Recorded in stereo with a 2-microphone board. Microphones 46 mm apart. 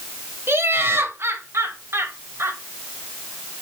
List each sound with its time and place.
0.5 s laughter: 65° right (ahead or behind), 2.5 m; by 2.6 s 70° right (ahead or behind), 2.5 m